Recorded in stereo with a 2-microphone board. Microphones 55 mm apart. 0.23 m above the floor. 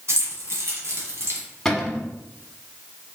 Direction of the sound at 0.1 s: 55° right (ahead or behind).